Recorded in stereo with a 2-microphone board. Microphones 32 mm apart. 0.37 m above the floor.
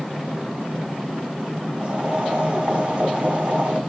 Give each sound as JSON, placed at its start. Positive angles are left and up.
{"t": 1.8, "sound": "boiling", "side_deg": -50, "distance_m": 2.0}